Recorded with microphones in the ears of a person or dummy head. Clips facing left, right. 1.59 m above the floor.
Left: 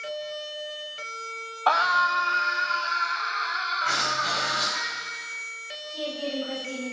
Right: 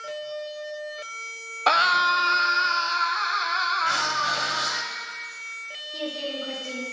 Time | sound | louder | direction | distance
1.7 | a scream | even | 30° right (ahead or behind) | 0.8 m
3.8 | writing | right 1 dB | 5° right (ahead or behind) | 2.5 m
5.9 | a woman speaking | left 1 dB | 45° right (ahead or behind) | 5 m